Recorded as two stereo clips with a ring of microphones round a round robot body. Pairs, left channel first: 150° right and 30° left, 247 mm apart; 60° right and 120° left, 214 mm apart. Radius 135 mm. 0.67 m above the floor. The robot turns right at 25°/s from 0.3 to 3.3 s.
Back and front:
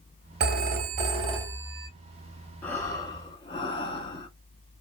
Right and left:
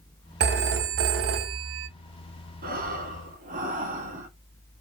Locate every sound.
0.4 s a phone ringing: 80° left, 0.8 m; by 1.9 s 115° left, 0.8 m
2.6 s breathing: 130° left, 1.2 m; by 4.3 s 150° left, 1.2 m